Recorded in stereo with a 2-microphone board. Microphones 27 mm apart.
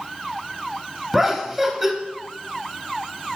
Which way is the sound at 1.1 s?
10° right (ahead or behind).